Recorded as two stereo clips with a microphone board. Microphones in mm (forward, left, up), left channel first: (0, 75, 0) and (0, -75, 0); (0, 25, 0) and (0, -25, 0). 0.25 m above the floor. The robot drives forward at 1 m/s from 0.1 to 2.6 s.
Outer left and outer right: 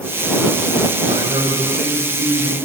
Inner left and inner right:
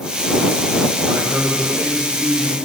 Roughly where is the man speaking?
Right.